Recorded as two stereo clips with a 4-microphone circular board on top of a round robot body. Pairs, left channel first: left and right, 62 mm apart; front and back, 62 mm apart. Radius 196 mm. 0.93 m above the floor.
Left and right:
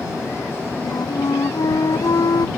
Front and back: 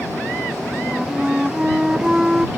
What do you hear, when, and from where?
0.8 s a flute: 100° left